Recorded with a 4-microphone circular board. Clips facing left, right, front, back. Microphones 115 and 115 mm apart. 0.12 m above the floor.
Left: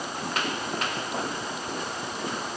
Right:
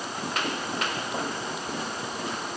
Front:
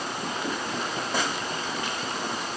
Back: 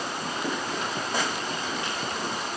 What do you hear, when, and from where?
Only background noise.